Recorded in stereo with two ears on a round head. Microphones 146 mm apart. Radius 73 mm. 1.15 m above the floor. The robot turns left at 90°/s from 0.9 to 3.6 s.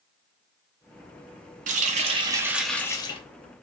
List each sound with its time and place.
1.7 s a running tap: 90° right, 0.5 m; by 3.2 s 130° left, 0.5 m